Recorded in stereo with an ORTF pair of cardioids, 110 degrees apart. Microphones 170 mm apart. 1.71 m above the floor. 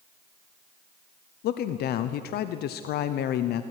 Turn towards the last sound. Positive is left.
turn(degrees=70)